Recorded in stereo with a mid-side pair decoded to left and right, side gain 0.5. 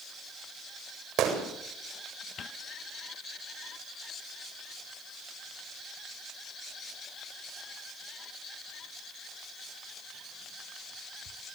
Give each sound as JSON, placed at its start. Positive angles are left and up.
{"t": 1.2, "sound": "a gunshot", "azimuth_deg": -65, "distance_m": 7.5}